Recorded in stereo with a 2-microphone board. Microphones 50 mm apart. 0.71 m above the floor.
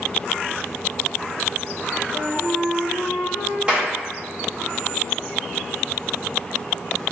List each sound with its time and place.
2.1 s a flute: 10° right (ahead or behind), 1.3 m
3.7 s a clap: 20° right (ahead or behind), 1.3 m